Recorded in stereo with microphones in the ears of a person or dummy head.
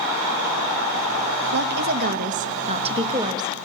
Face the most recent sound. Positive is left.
turn(degrees=-20)  # may be behind; listen again after turning